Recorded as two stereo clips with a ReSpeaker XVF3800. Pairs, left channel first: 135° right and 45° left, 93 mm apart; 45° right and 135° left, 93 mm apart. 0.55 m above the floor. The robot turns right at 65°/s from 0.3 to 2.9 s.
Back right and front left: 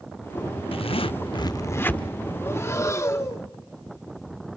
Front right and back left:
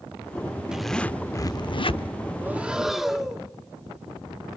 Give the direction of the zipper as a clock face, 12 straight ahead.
5 o'clock.